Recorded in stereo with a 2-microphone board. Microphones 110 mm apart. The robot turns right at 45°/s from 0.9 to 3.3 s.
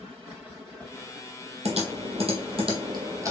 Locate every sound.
1.6 s typing on a keyboard: 70° right (ahead or behind), 1.2 m; by 3.3 s 25° right (ahead or behind), 1.2 m